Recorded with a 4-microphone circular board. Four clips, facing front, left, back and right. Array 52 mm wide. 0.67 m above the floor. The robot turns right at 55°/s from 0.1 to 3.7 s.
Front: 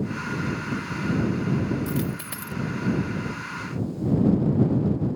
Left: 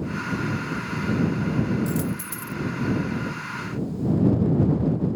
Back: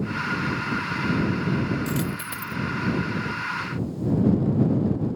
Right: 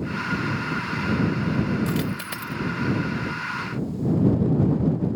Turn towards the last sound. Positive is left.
turn(degrees=-10)